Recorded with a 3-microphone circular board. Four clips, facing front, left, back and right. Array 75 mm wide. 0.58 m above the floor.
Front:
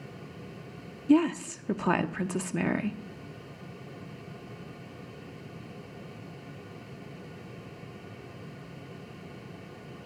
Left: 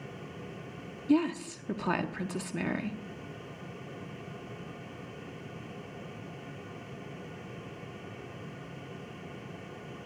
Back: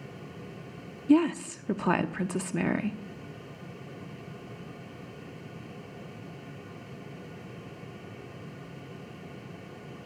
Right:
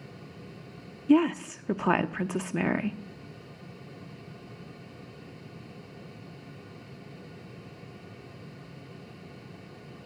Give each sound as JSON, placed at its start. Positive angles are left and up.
{"t": 1.1, "sound": "a woman speaking", "azimuth_deg": -95, "distance_m": 0.6}